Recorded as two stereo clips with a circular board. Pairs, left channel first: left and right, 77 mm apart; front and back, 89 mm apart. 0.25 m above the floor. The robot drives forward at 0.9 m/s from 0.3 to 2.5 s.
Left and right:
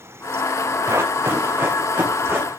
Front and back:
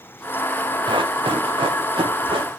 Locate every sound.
0.9 s running footsteps: 145° right, 1.7 m; by 2.5 s 155° right, 5 m